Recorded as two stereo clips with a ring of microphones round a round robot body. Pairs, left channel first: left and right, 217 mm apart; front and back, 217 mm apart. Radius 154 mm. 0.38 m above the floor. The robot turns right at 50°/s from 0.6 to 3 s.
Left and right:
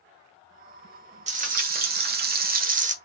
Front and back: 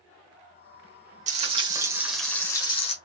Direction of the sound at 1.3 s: 135° right.